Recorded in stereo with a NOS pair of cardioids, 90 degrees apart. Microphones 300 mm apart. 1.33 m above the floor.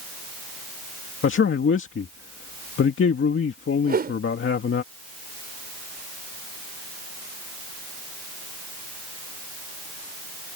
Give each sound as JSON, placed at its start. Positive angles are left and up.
{"t": 1.2, "sound": "a man speaking", "azimuth_deg": 40}
{"t": 3.8, "sound": "a whoosh", "azimuth_deg": -30}